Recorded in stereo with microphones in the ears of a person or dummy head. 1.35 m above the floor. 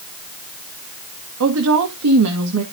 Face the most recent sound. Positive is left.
turn(degrees=-80)